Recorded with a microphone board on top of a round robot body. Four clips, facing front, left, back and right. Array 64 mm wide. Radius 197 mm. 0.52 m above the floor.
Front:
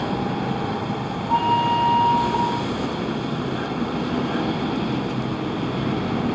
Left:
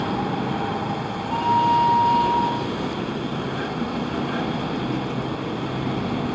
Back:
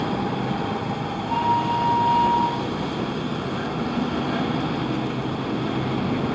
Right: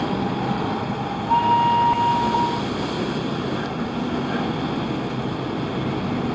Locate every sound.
1.3 s a flute: 70° right, 1.4 m